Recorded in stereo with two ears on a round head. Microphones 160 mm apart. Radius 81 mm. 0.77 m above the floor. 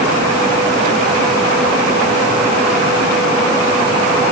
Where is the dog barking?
No dog barking in this recording.